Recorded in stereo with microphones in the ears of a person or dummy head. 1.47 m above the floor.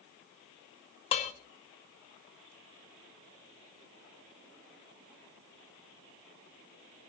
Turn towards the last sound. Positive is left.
turn(degrees=35)  # may be behind; listen again after turning